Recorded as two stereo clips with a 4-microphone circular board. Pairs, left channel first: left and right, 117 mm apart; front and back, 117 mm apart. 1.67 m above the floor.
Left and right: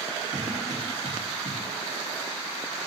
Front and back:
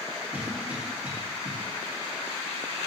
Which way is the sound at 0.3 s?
105° right.